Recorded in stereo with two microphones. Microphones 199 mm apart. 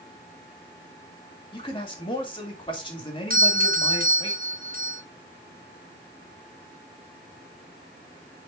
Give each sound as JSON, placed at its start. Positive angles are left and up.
{"t": 1.5, "sound": "a man speaking", "side_deg": 25, "distance_m": 3.0}
{"t": 3.3, "sound": "a doorbell", "side_deg": -45, "distance_m": 0.9}